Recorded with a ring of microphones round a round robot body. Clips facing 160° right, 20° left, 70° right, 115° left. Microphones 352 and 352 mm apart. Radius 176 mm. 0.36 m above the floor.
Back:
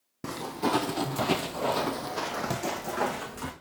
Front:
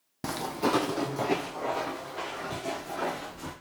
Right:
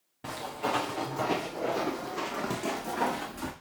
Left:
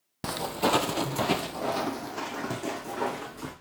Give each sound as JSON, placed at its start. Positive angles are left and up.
{"t": 0.2, "sound": "footsteps", "azimuth_deg": 100, "distance_m": 0.9}